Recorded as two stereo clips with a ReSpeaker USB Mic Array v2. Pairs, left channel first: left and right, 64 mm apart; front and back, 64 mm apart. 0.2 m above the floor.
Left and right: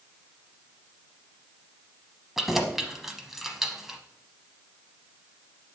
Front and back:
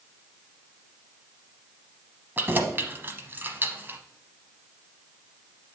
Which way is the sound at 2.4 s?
170° right.